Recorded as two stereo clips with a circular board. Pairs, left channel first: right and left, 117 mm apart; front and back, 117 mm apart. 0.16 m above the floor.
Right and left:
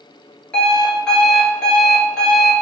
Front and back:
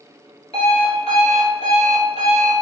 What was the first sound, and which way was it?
An alarm clock, 5° right.